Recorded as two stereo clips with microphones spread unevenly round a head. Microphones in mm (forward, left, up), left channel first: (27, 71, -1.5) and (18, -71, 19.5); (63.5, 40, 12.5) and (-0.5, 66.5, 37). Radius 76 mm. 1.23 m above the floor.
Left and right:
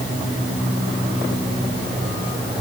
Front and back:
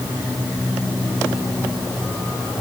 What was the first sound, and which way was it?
Only background noise.